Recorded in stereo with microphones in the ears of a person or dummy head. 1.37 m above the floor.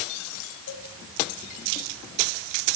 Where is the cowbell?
65° left (ahead or behind), 3 m.